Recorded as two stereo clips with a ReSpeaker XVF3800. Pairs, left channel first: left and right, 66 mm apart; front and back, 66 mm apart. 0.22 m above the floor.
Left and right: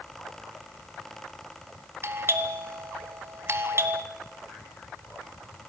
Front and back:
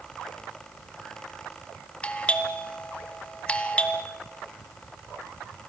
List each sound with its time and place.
2.0 s a doorbell: 65° right, 2.5 m